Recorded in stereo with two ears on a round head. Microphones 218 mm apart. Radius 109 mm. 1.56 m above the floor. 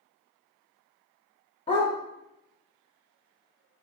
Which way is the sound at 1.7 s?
25° left (ahead or behind).